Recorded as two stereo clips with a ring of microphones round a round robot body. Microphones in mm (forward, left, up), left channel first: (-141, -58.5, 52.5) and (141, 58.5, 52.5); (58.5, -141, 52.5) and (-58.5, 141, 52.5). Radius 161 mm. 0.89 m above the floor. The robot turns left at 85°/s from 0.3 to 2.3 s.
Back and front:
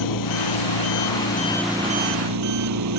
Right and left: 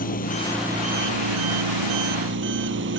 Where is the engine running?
130° right; by 3.0 s 60° left.